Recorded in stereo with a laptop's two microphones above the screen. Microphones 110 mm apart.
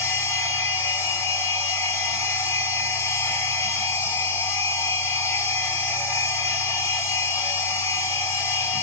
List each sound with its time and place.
0.0 s a machine running: 25° left (ahead or behind), 4 m